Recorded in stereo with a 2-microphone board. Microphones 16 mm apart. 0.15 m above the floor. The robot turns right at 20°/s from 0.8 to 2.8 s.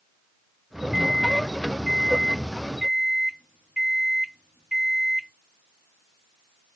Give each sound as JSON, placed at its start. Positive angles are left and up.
{"t": 0.9, "sound": "a microwave", "side_deg": -15, "distance_m": 0.9}